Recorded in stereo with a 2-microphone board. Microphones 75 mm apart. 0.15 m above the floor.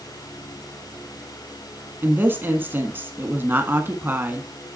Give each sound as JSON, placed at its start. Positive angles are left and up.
{"t": 2.0, "sound": "a woman speaking", "side_deg": -25, "distance_m": 1.5}